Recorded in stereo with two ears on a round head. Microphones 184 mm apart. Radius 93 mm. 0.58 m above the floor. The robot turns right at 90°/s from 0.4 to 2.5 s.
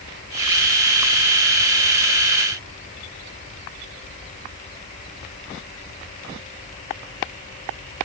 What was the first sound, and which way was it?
Only background noise.